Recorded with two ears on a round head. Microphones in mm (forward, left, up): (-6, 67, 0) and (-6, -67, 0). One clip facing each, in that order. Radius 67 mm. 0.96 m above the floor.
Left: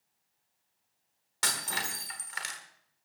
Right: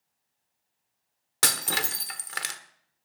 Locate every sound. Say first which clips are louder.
1.4 s breaking glass: right 5 dB; 70° right (ahead or behind), 1.2 m